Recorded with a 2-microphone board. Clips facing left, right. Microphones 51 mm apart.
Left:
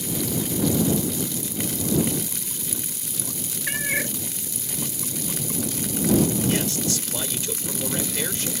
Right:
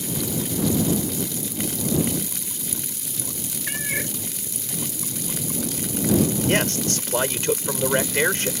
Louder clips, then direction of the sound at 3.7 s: Left 3 dB; 10° left (ahead or behind).